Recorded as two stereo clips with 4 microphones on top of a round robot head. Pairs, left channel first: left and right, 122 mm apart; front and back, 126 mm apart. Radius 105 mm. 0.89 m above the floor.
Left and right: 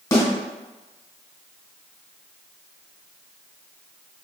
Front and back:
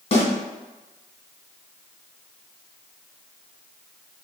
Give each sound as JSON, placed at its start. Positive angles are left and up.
{"t": 0.1, "sound": "a snare drum", "azimuth_deg": 30, "distance_m": 2.0}